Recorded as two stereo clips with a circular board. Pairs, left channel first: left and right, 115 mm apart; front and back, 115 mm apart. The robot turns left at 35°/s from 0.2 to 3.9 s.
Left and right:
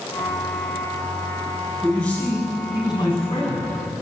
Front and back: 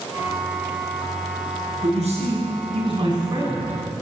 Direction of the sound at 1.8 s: 175° left.